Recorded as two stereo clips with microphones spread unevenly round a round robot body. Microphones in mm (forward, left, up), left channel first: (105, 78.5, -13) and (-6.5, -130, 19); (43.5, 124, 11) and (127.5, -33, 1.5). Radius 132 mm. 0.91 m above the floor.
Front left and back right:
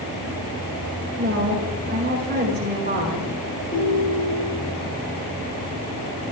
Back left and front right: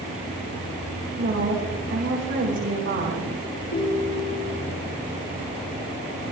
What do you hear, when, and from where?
1.2 s a woman speaking: 70° right, 5 m
3.7 s a ringtone: 120° left, 4 m